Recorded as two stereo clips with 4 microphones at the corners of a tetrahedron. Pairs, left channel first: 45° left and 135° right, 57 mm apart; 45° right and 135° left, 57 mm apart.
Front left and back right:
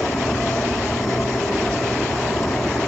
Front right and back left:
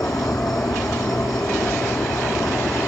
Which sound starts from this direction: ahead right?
An insect, at 0.0 s.